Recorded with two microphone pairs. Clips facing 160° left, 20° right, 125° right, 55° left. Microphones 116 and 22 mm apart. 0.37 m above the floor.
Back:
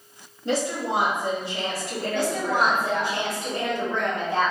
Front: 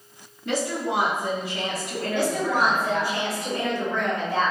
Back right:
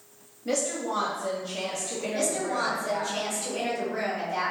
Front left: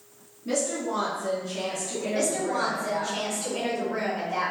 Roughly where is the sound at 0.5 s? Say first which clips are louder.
Back 1 dB, front left 1 dB; behind right.